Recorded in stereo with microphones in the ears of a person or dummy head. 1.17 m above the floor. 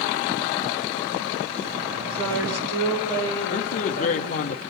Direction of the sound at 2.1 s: 80° right.